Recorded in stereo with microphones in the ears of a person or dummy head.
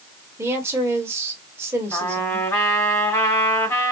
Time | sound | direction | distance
0.4 | a woman speaking | 15° right (ahead or behind) | 1.3 m
1.9 | a trumpet | 10° left (ahead or behind) | 1.8 m